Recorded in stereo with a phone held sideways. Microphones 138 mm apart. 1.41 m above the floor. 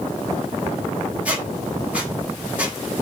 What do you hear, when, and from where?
1.2 s a squeak: 10° right (ahead or behind), 0.8 m